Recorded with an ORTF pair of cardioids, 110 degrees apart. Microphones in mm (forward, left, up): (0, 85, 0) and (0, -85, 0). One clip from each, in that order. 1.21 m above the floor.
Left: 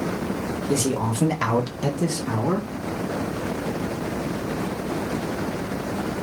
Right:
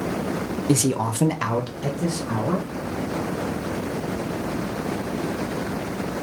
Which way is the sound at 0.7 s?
65° right.